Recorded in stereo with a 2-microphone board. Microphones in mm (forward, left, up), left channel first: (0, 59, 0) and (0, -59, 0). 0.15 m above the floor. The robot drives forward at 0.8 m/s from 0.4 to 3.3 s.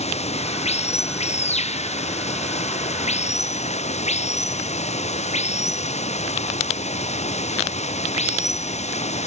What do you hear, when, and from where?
0.0 s running water: 75° left (ahead or behind); by 9.3 s 80° left